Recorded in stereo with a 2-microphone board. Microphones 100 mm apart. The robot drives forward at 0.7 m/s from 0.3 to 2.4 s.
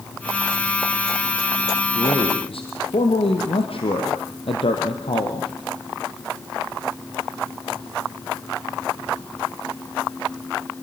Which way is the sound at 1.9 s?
70° left (ahead or behind).